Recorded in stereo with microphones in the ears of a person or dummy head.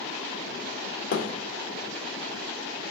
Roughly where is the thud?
Left.